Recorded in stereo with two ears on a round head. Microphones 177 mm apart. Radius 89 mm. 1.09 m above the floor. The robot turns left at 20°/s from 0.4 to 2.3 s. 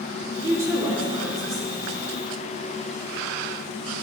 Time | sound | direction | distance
0.4 | a woman speaking | 160° right | 2.5 m